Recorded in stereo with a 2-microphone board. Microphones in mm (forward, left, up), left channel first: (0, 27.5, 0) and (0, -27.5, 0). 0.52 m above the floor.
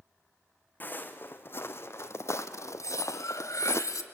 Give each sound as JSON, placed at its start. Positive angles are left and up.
{"t": 0.8, "sound": "footsteps", "side_deg": 35, "distance_m": 1.8}
{"t": 2.8, "sound": "cutlery clinking", "side_deg": 80, "distance_m": 1.5}